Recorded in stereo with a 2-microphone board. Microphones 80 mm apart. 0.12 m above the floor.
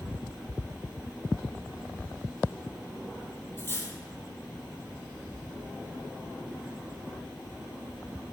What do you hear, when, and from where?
3.6 s cutlery clinking: 30° left (ahead or behind), 2.5 m